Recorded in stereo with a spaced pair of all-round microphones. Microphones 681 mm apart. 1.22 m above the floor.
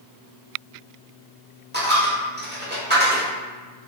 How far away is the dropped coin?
About 1.0 m.